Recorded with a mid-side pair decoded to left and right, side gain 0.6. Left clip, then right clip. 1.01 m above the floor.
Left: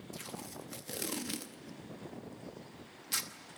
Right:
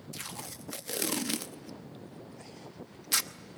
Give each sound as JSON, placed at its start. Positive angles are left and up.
{"t": 0.1, "sound": "tape being pulled", "azimuth_deg": -35, "distance_m": 0.9}